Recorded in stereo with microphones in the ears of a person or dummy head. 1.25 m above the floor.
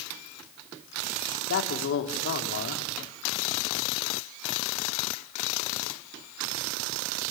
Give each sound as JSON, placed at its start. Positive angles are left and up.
{"t": 1.5, "sound": "a man speaking", "side_deg": 65, "distance_m": 3.0}